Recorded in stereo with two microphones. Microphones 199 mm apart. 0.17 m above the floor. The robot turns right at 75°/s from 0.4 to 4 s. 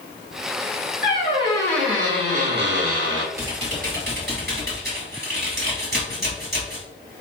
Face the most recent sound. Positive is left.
turn(degrees=-115)